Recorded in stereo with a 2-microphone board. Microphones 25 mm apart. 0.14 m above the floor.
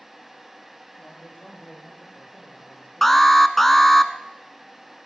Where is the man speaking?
55° left (ahead or behind), 8 m; by 3.4 s 75° left (ahead or behind), 6.5 m.